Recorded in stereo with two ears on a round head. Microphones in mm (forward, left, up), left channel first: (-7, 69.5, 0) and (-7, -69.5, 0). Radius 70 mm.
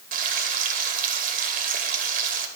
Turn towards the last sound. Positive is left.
turn(degrees=-65)  # may be behind; listen again after turning